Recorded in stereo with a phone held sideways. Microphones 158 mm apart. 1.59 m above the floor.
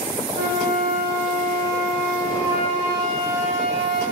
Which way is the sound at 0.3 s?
15° right (ahead or behind).